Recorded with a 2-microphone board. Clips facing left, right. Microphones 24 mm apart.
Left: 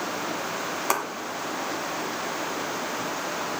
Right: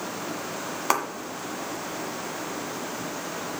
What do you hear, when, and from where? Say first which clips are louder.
0.9 s a clap: right 2 dB; 10° right (ahead or behind), 1.5 m